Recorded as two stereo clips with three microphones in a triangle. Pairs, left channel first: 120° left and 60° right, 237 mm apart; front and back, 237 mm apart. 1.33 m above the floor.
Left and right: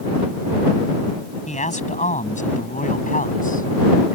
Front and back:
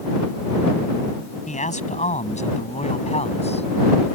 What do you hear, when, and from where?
1.5 s a man speaking: 60° left; by 4.2 s 65° left